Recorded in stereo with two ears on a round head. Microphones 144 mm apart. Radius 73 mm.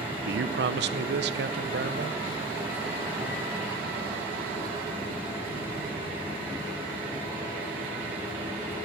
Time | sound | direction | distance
0.2 | a man speaking | 80° right | 0.7 m